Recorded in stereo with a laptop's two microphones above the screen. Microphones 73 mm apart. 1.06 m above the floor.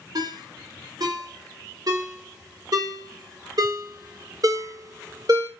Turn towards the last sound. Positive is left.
turn(degrees=-60)  # may be behind; listen again after turning